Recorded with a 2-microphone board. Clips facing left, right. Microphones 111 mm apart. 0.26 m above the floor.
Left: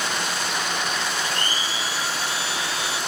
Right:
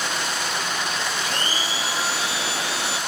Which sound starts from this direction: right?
A blender, at 1.2 s.